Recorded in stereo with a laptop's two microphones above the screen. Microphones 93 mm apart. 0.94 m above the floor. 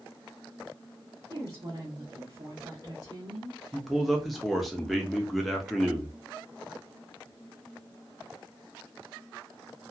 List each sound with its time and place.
1.3 s a woman speaking: 40° right (ahead or behind), 1.1 m
3.7 s a man speaking: centre (ahead or behind), 0.8 m